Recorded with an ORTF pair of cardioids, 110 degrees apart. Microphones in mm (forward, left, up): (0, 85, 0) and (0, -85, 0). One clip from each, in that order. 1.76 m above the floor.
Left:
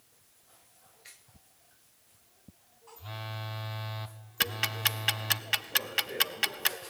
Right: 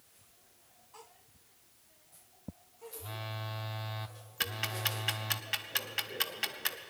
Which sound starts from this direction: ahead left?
Ticking, at 4.4 s.